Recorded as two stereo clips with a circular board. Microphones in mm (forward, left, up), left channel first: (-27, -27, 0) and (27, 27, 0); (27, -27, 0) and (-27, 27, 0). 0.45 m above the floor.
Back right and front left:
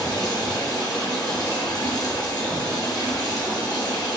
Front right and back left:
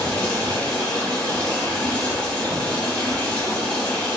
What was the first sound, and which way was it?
Running water, 120° right.